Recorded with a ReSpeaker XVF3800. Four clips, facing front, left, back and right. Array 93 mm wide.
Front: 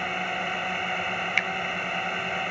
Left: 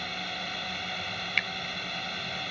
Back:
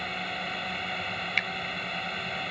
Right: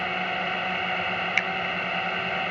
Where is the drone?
60° right.